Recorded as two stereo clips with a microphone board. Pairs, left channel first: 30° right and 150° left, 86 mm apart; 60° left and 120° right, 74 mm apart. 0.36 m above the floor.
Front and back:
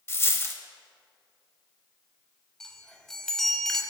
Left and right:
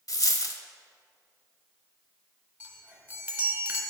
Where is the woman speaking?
I don't hear a woman speaking.